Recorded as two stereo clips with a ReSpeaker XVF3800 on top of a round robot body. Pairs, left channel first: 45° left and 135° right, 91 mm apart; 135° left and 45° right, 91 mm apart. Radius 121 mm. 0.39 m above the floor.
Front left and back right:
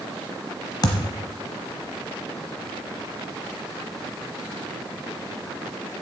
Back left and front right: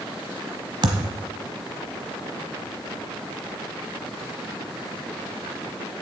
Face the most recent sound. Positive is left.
turn(degrees=-5)